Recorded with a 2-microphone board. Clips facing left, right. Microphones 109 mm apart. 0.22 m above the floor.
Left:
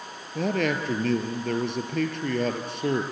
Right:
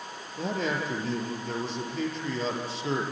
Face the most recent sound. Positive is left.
turn(degrees=60)  # may be behind; listen again after turning